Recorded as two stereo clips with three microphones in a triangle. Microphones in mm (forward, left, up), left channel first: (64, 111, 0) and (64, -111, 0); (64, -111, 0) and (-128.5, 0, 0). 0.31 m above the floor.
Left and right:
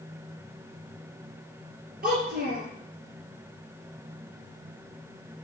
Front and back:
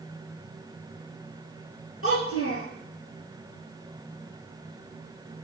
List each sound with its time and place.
2.0 s a child speaking: 40° right, 4.5 m